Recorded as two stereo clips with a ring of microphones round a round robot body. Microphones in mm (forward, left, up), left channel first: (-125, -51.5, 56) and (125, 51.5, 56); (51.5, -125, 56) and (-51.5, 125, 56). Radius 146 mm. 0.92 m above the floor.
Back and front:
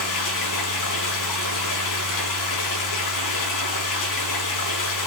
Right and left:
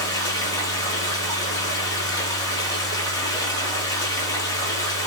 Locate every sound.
0.0 s running water: 145° right, 4 m